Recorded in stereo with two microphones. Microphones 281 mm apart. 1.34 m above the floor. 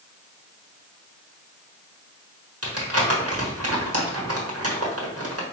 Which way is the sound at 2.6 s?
55° right (ahead or behind).